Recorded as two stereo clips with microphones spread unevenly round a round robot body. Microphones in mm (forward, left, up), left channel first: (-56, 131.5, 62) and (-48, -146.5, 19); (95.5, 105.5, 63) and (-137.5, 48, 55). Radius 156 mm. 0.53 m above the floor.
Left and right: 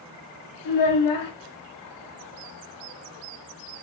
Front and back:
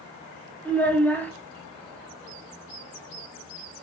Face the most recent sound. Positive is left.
turn(degrees=100)